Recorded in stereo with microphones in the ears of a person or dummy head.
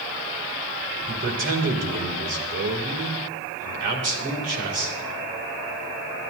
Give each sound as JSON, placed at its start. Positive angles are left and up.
{"t": 1.1, "sound": "a man speaking", "side_deg": -55, "distance_m": 2.5}